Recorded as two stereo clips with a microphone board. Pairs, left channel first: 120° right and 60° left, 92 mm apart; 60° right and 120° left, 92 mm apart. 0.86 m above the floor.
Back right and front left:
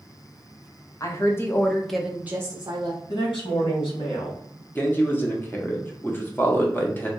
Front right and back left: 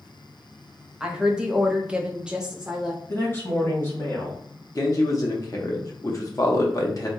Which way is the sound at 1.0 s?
160° right.